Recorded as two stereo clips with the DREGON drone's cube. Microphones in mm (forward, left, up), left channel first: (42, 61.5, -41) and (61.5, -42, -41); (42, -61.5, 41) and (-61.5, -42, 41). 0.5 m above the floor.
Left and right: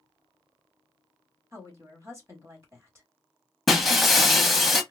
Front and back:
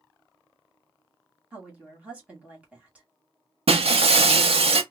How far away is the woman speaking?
About 1.5 m.